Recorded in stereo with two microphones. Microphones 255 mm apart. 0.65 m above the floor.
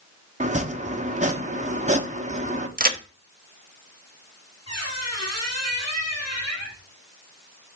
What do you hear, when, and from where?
0.4 s chopping: 30° right (ahead or behind), 1.0 m
2.8 s a crack: 35° right (ahead or behind), 0.8 m
4.7 s a squeak: 85° left, 3.5 m